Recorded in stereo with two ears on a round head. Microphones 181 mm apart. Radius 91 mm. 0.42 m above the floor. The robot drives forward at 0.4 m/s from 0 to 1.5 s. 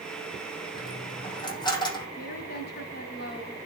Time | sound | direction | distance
0.8 | a dropped coin | 25° left (ahead or behind) | 6 m
2.2 | a woman speaking | 55° left (ahead or behind) | 2.5 m